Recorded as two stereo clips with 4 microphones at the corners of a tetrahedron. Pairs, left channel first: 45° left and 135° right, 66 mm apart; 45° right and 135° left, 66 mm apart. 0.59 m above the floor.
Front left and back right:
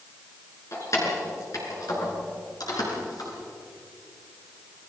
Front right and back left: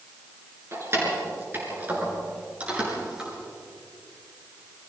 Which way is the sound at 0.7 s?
90° left.